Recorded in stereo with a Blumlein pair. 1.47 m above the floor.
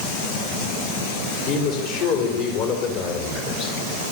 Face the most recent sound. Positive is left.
turn(degrees=40)